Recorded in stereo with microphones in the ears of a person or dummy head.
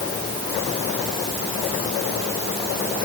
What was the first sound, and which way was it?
Only background noise.